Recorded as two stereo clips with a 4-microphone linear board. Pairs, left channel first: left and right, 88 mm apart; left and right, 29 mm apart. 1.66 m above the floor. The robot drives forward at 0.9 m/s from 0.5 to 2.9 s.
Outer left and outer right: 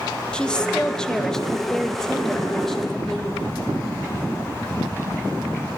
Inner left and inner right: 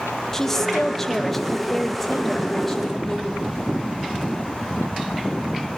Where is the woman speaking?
10° left (ahead or behind), 1.8 m; by 3.5 s 5° left (ahead or behind), 4 m.